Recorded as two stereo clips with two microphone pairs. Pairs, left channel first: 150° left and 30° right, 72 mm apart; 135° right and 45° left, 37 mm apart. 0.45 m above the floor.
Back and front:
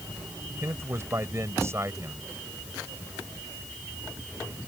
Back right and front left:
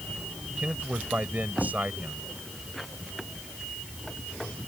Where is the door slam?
I don't hear a door slam.